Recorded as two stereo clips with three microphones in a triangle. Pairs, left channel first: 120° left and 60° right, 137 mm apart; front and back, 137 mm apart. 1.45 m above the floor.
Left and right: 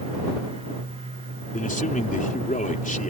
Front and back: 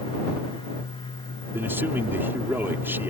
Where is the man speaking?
105° left.